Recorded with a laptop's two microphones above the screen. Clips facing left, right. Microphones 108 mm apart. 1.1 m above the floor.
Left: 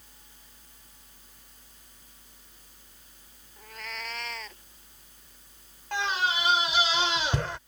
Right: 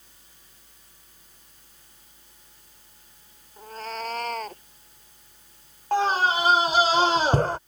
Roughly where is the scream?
Right.